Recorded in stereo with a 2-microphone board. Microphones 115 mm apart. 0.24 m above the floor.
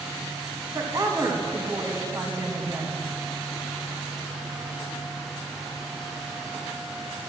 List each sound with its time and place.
0.7 s a woman speaking: 30° right (ahead or behind), 1.8 m